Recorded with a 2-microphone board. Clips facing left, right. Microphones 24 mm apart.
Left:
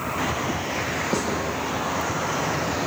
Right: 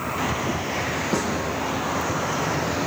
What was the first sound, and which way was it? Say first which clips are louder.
A snare drum: right 1 dB; 5° left (ahead or behind).